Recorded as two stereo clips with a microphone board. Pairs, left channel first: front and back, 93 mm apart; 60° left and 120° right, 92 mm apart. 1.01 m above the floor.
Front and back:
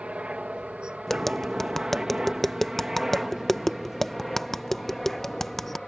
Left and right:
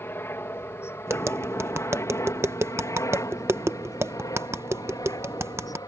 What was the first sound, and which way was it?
A helicopter, 110° left.